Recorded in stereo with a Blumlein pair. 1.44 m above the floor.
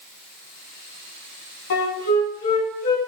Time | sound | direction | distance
1.7 | a flute | 65° left | 2 m